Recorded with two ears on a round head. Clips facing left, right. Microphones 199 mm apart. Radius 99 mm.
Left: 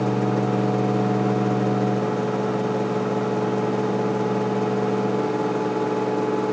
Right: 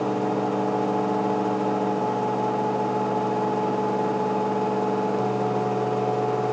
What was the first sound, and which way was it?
Only background noise.